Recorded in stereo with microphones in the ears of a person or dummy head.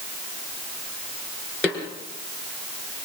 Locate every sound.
1.6 s a snare drum: 15° left (ahead or behind), 4 m